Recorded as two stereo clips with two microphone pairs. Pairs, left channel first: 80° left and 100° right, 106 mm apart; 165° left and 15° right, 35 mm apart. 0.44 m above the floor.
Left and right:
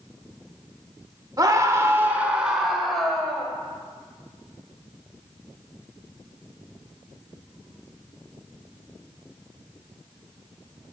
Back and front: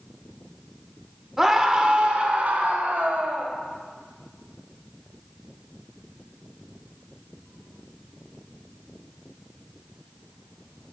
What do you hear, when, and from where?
1.4 s a scream: 85° right, 1.0 m; by 3.5 s straight ahead, 1.8 m